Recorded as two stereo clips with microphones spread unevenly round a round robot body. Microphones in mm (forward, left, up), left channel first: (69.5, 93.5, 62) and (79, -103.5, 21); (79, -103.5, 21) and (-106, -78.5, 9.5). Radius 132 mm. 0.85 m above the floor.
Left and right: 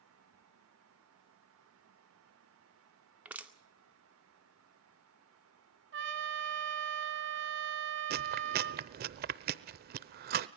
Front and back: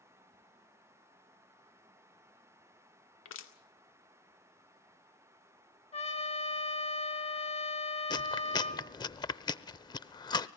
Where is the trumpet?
60° right, 3 m.